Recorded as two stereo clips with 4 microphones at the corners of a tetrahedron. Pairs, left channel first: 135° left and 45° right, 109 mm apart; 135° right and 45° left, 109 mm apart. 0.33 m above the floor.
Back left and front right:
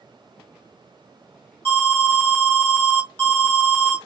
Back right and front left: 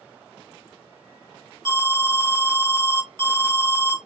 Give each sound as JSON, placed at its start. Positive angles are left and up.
{"t": 1.6, "sound": "an alarm", "azimuth_deg": 70, "distance_m": 1.4}